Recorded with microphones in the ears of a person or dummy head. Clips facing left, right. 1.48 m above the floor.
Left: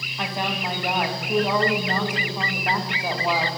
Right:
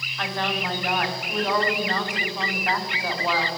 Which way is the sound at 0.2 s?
10° left (ahead or behind).